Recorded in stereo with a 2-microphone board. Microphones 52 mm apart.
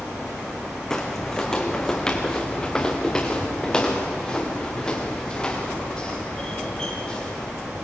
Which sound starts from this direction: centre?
Footsteps, at 0.9 s.